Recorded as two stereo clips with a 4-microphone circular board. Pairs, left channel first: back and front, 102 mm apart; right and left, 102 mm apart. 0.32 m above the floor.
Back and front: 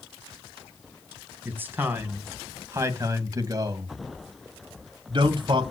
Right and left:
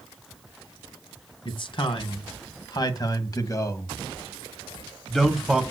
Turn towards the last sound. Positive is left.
turn(degrees=5)